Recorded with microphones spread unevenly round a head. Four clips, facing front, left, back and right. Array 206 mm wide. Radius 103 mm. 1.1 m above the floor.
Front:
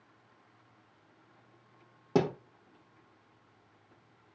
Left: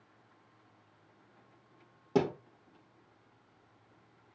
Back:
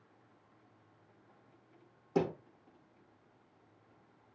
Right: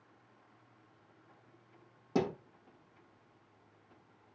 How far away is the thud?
About 3 m.